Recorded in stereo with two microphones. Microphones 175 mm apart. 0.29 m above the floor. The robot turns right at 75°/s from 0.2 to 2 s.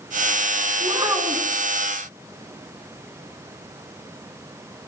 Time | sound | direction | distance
0.8 | a child speaking | 45° right | 2.5 m